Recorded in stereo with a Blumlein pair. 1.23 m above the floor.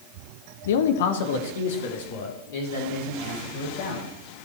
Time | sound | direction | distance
0.7 | a man speaking | 60° left | 0.8 m